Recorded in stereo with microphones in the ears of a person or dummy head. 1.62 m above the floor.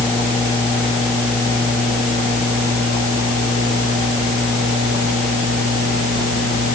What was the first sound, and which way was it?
Only background noise.